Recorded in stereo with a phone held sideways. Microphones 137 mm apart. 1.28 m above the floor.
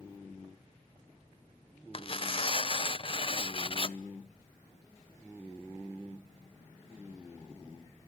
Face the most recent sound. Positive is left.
turn(degrees=40)  # may be behind; listen again after turning